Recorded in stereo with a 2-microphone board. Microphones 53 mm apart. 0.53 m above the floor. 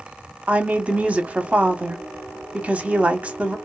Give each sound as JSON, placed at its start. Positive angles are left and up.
{"t": 0.5, "sound": "a woman speaking", "side_deg": -25, "distance_m": 0.9}